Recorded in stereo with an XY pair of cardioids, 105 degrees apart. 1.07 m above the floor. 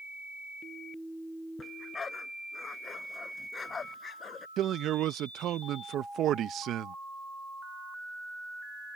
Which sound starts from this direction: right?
A man speaking, at 4.6 s.